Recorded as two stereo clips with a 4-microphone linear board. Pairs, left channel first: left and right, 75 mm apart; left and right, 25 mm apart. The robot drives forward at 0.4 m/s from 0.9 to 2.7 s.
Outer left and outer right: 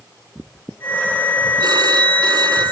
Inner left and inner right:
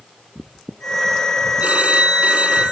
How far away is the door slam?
I don't hear a door slam.